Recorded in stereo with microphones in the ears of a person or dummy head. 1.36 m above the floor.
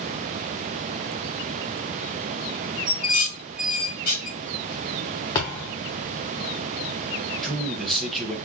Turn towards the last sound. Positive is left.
turn(degrees=0)  # may be behind; listen again after turning